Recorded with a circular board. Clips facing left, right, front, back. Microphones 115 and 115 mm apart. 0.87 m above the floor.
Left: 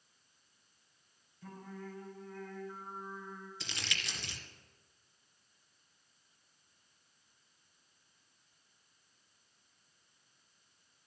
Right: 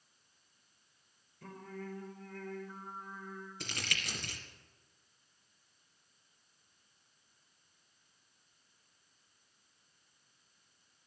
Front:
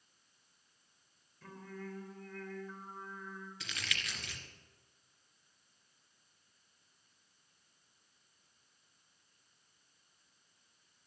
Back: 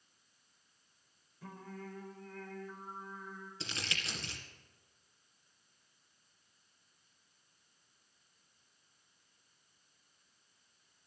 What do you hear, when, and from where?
1.4 s singing: 105° right, 4 m
3.6 s crumpling: 125° right, 2 m